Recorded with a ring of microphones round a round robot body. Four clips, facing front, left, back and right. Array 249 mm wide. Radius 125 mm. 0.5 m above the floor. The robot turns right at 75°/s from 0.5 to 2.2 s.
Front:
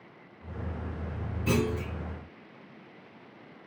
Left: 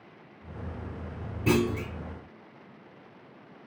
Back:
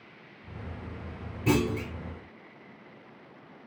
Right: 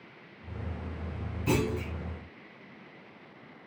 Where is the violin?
I don't hear a violin.